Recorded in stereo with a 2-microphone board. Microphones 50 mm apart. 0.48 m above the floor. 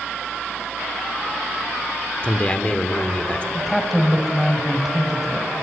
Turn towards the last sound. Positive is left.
turn(degrees=0)  # may be behind; listen again after turning